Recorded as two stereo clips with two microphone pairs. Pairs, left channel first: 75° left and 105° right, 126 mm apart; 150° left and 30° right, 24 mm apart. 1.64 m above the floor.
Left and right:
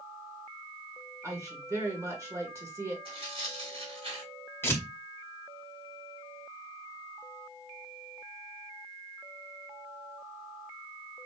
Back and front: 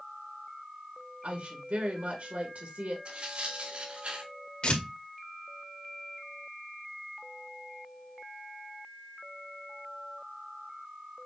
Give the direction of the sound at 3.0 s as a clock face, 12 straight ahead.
2 o'clock.